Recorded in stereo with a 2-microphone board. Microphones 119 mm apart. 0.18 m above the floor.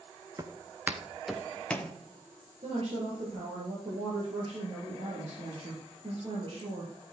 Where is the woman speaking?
50° right (ahead or behind), 3 m.